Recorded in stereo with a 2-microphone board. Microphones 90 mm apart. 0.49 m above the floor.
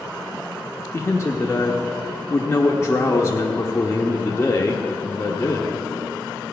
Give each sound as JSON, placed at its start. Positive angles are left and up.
{"t": 0.9, "sound": "a man speaking", "side_deg": 30, "distance_m": 0.8}